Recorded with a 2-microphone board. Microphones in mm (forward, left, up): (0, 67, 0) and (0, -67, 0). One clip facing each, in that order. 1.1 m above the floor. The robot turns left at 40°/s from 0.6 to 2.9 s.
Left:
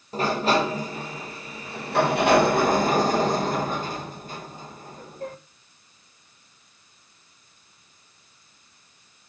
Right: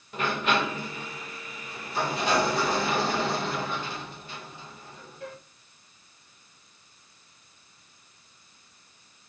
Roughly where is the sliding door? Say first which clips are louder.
Left 5 dB; behind left.